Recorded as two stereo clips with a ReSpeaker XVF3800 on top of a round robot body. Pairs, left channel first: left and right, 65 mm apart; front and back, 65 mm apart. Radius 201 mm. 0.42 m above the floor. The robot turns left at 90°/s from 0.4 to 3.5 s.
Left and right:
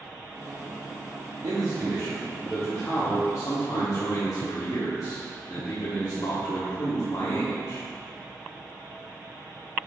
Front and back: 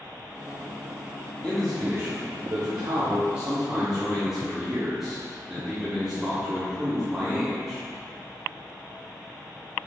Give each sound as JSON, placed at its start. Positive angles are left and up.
{"t": 1.4, "sound": "a man speaking", "azimuth_deg": -75, "distance_m": 1.5}